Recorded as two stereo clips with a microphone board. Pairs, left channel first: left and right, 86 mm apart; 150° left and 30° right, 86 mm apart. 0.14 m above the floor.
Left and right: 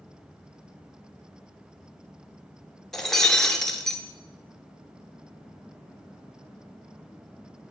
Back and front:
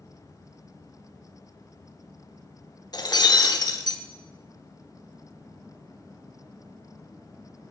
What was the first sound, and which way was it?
Breaking glass, 175° left.